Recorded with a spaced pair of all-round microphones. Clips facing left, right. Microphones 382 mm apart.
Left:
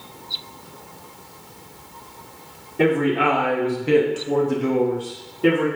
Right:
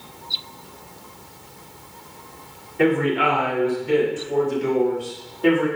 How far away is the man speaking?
About 1.3 m.